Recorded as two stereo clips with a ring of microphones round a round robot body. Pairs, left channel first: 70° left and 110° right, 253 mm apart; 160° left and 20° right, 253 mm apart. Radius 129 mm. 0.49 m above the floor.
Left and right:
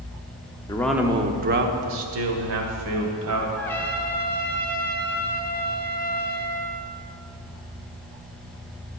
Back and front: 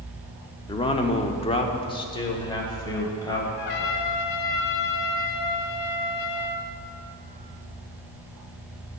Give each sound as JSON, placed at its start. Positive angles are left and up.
{"t": 0.7, "sound": "a man speaking", "azimuth_deg": 115, "distance_m": 0.7}
{"t": 3.6, "sound": "a trumpet", "azimuth_deg": 150, "distance_m": 1.0}